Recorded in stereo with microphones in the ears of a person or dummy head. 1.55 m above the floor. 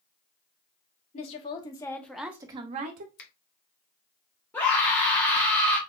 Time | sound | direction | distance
1.1 | a woman speaking | 30° left (ahead or behind) | 0.9 m
3.2 | a finger snap | 50° left (ahead or behind) | 0.7 m
4.5 | a scream | 10° left (ahead or behind) | 0.8 m